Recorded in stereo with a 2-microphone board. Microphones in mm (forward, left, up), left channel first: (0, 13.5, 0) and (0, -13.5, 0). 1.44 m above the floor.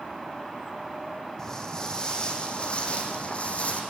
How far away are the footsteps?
About 4.5 m.